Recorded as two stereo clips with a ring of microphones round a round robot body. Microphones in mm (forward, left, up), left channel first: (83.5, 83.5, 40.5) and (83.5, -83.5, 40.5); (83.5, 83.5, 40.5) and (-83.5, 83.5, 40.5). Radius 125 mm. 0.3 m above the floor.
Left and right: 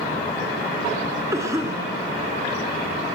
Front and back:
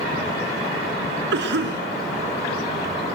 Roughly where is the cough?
Behind.